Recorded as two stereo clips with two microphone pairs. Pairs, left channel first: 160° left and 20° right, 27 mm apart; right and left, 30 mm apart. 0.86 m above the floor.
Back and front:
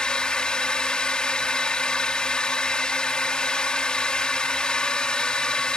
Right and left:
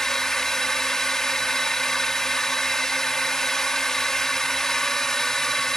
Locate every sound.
0.0 s a drone: 155° right